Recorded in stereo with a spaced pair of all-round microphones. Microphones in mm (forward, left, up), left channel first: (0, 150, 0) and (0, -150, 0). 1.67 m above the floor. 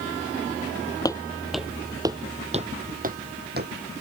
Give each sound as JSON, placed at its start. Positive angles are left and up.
{"t": 1.1, "sound": "footsteps", "side_deg": 15}